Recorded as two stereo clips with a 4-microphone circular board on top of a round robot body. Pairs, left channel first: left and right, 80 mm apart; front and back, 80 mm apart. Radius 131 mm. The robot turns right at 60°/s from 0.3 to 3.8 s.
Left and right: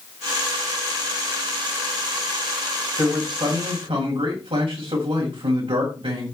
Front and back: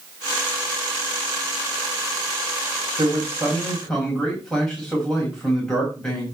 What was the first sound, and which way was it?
A man speaking, 130° right.